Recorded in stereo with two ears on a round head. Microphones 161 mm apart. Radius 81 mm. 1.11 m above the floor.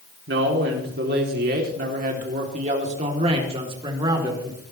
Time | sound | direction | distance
0.3 | a man speaking | 65° right (ahead or behind) | 3 m